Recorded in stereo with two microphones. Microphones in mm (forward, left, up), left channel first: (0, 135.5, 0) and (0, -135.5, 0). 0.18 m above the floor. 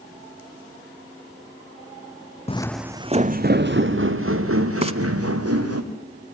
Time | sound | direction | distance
2.5 | footsteps | 25° left (ahead or behind) | 0.6 m
4.8 | frying | 25° right (ahead or behind) | 0.7 m